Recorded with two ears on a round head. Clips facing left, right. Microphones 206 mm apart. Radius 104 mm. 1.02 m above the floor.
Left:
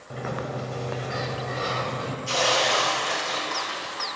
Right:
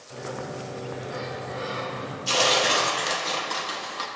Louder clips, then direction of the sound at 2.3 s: Right 1 dB; 45° right (ahead or behind).